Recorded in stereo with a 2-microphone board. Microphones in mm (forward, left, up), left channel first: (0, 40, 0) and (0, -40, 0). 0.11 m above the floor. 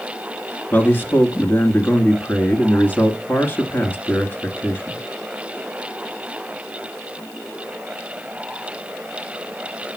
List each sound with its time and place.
0.7 s a man speaking: 25° left (ahead or behind), 1.8 m